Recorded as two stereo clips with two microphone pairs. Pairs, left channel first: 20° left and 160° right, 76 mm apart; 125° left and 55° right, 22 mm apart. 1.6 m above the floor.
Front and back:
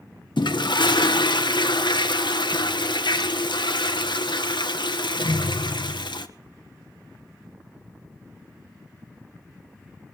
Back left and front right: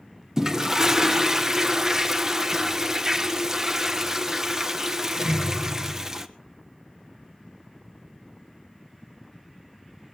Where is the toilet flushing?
15° left, 1.3 m.